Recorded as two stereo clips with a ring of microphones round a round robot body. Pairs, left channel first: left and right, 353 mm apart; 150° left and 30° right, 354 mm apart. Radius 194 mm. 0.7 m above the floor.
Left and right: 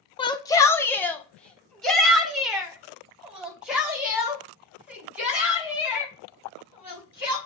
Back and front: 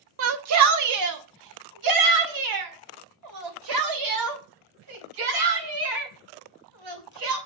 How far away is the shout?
About 0.8 m.